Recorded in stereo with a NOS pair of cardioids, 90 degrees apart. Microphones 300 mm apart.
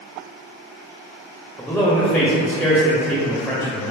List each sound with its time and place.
1.6 s a man speaking: straight ahead, 0.7 m